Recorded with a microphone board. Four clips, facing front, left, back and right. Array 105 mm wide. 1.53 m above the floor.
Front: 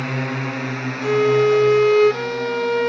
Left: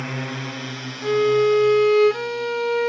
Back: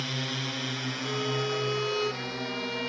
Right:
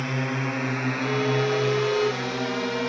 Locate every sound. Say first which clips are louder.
0.0 s a drone: right 2 dB, front 10 dB; straight ahead; by 2.9 s 80° right
1.0 s a violin: left 9 dB, front 17 dB; 30° left